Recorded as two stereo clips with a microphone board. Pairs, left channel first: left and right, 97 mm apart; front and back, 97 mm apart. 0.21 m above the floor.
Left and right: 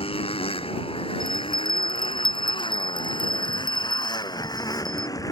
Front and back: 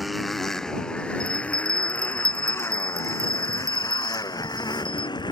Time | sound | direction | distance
0.0 | a motorcycle | 90° left | ?
1.2 | a bell | 125° left | ?